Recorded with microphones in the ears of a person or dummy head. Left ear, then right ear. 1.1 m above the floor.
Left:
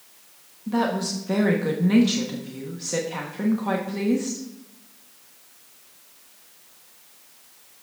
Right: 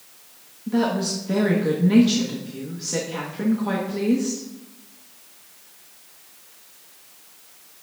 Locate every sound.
0.7 s a woman speaking: 30° left (ahead or behind), 1.1 m